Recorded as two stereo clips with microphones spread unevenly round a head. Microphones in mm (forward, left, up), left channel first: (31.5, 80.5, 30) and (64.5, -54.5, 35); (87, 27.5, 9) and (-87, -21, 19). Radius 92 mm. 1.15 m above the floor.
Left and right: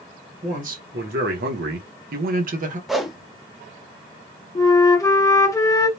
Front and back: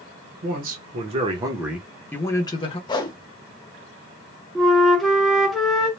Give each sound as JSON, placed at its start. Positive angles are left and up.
{"t": 0.4, "sound": "a man speaking", "azimuth_deg": -125, "distance_m": 1.0}
{"t": 2.9, "sound": "a whoosh", "azimuth_deg": 15, "distance_m": 0.6}
{"t": 4.5, "sound": "a flute", "azimuth_deg": 100, "distance_m": 0.7}